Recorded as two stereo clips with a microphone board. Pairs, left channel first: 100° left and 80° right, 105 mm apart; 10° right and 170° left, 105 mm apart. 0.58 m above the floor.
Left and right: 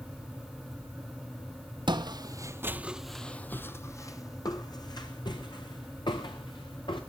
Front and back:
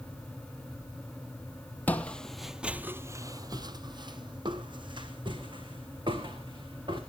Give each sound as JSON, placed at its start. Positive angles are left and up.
{"t": 1.9, "sound": "footsteps", "azimuth_deg": -80, "distance_m": 0.8}